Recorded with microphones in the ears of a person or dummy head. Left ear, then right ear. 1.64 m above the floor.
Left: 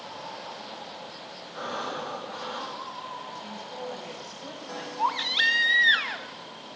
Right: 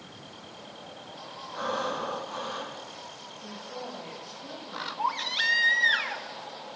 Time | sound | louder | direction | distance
1.5 | breathing | right 2 dB | centre (ahead or behind) | 5.5 m
3.4 | a woman speaking | left 2 dB | 45° left (ahead or behind) | 8.5 m
5.0 | a baby crying | left 4 dB | 10° left (ahead or behind) | 0.8 m